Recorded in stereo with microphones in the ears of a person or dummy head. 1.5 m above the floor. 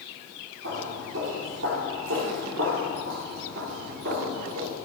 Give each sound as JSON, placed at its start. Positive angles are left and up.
{"t": 0.6, "sound": "footsteps", "side_deg": -60, "distance_m": 3.5}